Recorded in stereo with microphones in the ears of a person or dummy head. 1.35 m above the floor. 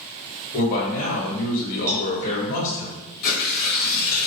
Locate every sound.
0.5 s a man speaking: 45° left (ahead or behind), 0.9 m
1.9 s a cowbell: 45° right (ahead or behind), 0.5 m
3.2 s tearing paper: 50° left (ahead or behind), 1.0 m